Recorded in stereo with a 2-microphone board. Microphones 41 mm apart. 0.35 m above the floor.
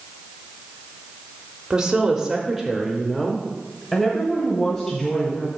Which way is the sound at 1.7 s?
20° right (ahead or behind).